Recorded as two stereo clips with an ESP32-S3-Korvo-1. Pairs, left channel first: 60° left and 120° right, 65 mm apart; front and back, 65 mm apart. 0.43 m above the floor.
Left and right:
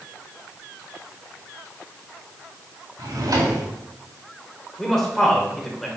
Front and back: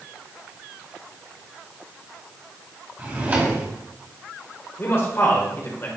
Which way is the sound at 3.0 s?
120° right.